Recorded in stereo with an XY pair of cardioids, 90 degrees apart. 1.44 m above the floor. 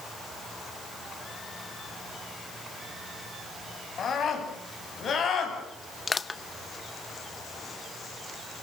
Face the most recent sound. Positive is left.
turn(degrees=30)